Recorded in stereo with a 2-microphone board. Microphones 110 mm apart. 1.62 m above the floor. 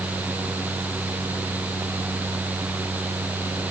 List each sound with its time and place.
Only background noise.